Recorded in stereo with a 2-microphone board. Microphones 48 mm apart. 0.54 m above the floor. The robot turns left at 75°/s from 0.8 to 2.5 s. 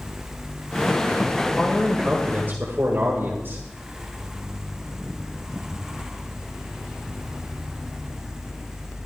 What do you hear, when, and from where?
1.4 s a man speaking: 35° left, 1.7 m; by 3.6 s 50° right, 1.7 m